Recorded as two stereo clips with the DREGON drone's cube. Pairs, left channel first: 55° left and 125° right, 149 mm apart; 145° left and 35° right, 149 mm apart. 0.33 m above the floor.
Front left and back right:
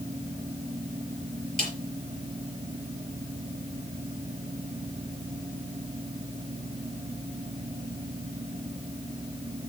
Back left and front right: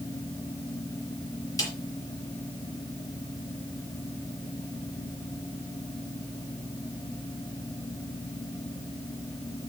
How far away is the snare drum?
About 6 m.